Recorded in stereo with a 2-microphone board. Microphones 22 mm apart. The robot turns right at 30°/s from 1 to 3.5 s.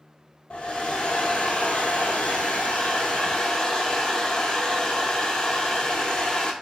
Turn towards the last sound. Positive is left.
turn(degrees=140)